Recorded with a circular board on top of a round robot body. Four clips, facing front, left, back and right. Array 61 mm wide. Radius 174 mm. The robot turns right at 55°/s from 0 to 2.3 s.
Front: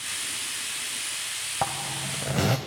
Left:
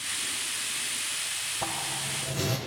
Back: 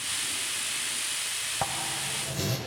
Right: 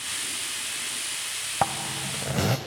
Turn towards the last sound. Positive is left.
turn(degrees=-40)